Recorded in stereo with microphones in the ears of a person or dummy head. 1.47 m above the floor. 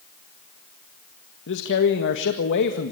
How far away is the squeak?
No squeak in this recording.